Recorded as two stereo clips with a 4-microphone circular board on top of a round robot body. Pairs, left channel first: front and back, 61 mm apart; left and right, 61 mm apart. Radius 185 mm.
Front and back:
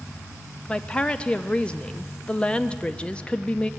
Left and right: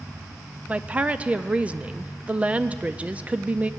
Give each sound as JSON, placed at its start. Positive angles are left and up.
{"t": 0.7, "sound": "a woman speaking", "azimuth_deg": -50, "distance_m": 0.8}